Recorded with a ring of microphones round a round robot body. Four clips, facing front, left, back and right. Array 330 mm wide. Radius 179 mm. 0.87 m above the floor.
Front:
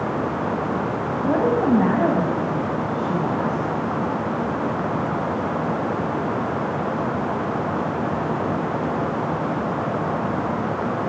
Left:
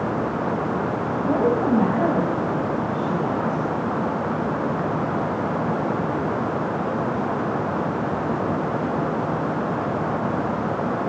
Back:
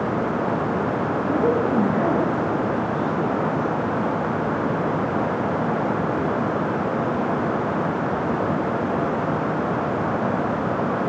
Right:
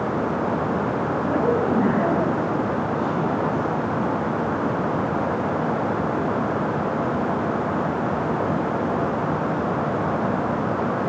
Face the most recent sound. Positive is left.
turn(degrees=15)